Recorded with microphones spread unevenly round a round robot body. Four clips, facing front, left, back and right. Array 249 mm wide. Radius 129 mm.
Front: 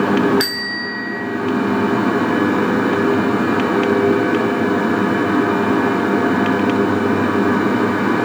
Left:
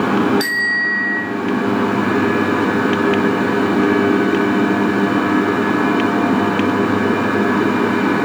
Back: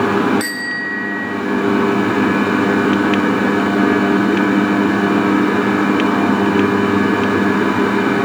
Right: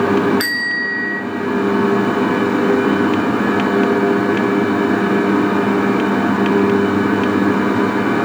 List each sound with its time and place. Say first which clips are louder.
0.4 s a bicycle bell: left 1 dB, back 1 dB; 20° right, 5.5 m